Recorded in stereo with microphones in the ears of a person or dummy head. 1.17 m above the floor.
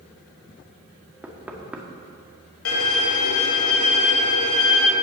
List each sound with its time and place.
1.2 s knocking: 10° right (ahead or behind), 1.7 m
2.6 s a violin: 75° left (ahead or behind), 2.5 m